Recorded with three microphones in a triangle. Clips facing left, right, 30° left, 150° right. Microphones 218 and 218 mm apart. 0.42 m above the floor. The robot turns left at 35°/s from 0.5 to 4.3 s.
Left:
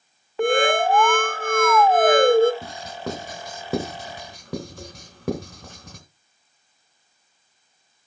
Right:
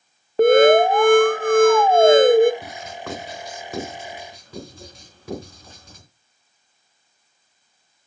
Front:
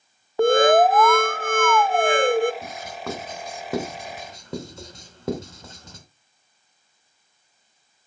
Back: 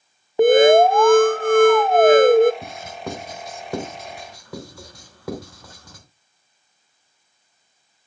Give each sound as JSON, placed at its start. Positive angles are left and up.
{"t": 0.4, "sound": "an alarm", "azimuth_deg": -90, "distance_m": 0.7}
{"t": 2.6, "sound": "writing", "azimuth_deg": 155, "distance_m": 2.5}